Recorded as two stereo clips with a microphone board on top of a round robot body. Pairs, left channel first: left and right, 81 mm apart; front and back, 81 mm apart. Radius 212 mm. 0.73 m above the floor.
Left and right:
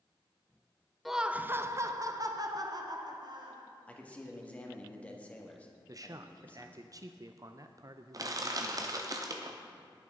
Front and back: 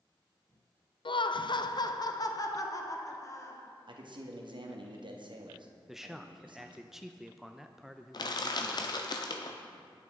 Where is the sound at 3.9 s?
165° left, 1.9 m.